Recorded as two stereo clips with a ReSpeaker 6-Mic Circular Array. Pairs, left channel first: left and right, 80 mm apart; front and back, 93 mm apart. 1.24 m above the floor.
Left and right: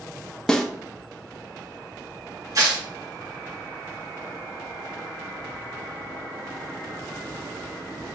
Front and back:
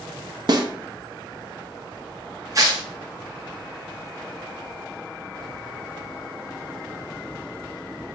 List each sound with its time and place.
0.5 s a snare drum: 165° left, 0.6 m
2.5 s tearing paper: 130° right, 1.0 m